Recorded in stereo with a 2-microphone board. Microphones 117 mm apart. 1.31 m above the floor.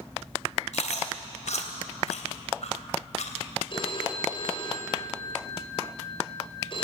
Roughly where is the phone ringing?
Left.